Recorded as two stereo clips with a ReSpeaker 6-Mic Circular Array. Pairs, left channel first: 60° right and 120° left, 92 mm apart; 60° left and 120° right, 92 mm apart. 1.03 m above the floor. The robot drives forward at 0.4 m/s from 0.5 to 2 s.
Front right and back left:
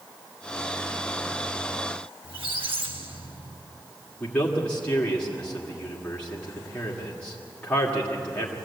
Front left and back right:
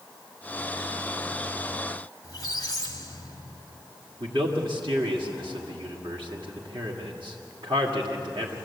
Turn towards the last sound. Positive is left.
turn(degrees=-135)